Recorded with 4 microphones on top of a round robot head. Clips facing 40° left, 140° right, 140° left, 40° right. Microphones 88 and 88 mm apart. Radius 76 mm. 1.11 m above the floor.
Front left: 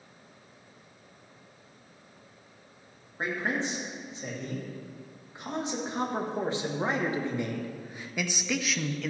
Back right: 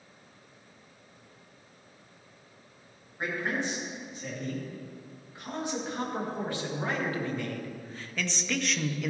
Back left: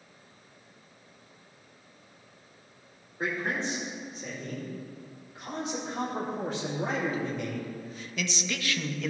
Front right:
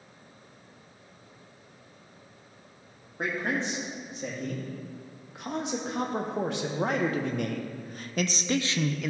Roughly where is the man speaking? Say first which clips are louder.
Front left 1 dB, front right 1 dB; ahead right.